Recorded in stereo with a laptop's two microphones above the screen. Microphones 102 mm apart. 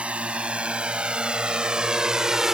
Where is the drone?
10° right (ahead or behind); by 2.5 s 5° right (ahead or behind).